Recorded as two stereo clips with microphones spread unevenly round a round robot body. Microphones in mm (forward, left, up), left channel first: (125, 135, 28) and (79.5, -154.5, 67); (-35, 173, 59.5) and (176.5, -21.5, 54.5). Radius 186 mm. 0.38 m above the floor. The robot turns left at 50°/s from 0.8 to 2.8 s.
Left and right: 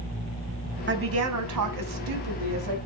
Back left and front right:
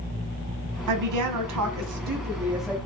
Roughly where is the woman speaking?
Ahead right.